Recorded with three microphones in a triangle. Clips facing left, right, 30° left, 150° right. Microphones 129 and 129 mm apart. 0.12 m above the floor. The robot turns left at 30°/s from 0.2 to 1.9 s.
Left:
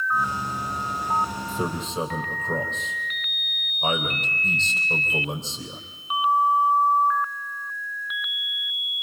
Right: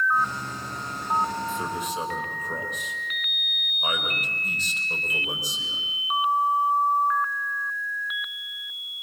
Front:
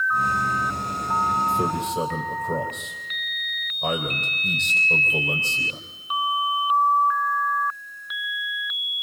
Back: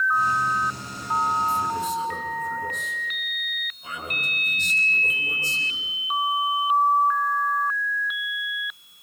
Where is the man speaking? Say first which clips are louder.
Left 1 dB, front 1 dB; 45° left, 4 m; by 5.8 s 30° left, 4 m.